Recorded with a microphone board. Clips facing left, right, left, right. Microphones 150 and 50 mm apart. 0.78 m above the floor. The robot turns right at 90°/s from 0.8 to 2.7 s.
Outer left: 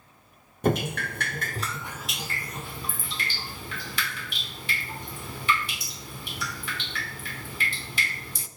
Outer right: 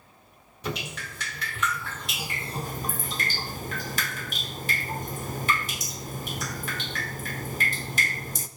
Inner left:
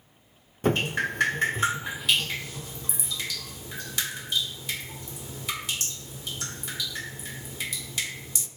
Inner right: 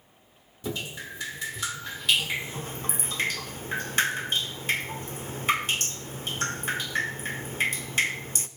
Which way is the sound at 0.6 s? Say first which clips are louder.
Outer left 9 dB, inner left 9 dB; 65° left.